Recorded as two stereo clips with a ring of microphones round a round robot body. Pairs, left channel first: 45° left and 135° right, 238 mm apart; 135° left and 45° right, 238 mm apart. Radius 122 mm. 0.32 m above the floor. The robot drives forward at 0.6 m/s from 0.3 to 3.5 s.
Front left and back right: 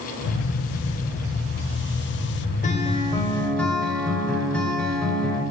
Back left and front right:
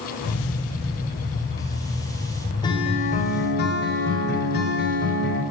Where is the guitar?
75° left, 0.9 m; by 5.4 s 130° left, 1.0 m.